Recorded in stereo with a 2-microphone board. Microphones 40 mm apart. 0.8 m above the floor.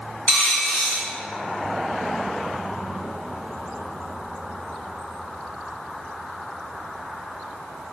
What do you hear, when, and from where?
0.3 s a dropped coin: 30° left (ahead or behind), 1.3 m